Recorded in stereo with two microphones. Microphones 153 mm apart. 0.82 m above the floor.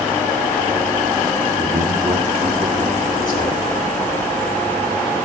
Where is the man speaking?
70° right (ahead or behind), 1.2 m; by 3.6 s 65° right (ahead or behind), 3 m.